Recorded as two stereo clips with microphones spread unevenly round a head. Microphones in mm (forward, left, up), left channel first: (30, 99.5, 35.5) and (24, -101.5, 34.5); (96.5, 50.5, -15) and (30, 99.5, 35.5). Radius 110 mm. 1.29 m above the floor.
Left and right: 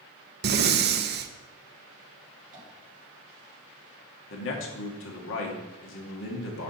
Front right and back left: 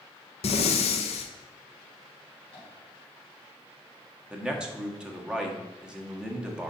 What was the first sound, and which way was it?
Breathing, 50° right.